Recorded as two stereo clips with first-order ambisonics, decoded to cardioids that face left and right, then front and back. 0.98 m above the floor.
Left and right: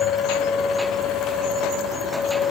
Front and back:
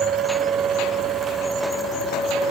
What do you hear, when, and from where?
Only background noise.